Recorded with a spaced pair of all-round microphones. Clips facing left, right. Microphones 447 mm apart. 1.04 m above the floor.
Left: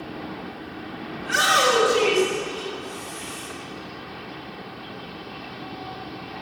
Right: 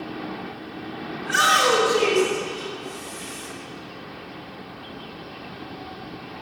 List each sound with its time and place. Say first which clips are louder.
1.2 s a shout: left 1 dB; 55° left (ahead or behind), 3 m; by 3.5 s 25° left (ahead or behind), 5 m